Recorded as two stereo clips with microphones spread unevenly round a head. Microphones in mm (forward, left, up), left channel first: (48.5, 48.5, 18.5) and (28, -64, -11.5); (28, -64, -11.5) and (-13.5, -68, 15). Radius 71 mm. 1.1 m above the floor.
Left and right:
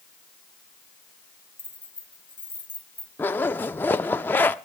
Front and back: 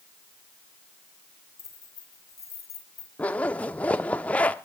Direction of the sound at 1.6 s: 10° left.